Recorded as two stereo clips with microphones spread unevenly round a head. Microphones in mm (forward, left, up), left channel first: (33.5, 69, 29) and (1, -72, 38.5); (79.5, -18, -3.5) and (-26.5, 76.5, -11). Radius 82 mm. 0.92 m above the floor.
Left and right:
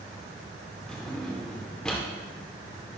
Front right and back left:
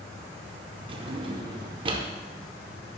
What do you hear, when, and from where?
0.9 s a drawer: 165° left, 0.6 m